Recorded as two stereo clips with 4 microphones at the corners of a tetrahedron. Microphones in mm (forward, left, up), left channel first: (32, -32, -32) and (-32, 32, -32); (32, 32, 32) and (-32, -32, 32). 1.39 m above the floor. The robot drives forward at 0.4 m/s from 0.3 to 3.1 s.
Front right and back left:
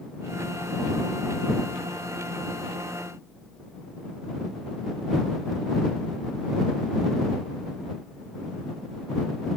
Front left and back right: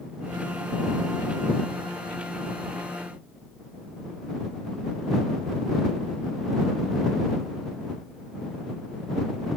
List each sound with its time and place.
Only background noise.